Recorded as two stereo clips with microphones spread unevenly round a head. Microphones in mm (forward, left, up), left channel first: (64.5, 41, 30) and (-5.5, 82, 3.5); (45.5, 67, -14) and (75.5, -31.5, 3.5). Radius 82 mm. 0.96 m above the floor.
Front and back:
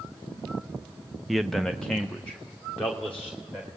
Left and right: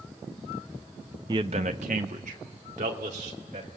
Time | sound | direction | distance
1.3 | a man speaking | 140° right | 0.5 m